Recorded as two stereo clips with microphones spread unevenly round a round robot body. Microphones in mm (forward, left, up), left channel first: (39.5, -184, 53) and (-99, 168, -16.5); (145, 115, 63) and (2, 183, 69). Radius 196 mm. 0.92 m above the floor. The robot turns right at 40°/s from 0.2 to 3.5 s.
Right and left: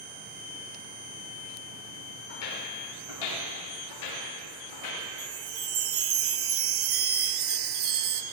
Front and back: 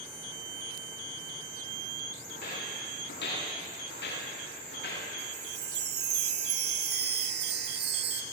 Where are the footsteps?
85° right, 9.5 m; by 5.0 s 25° right, 10.5 m.